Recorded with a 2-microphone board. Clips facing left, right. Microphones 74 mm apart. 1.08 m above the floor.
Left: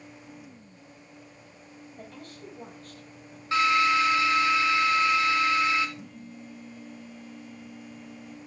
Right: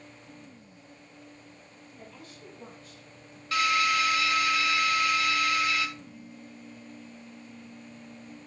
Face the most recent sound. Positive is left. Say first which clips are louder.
# left 2 dB
turn(degrees=70)  # may be behind; listen again after turning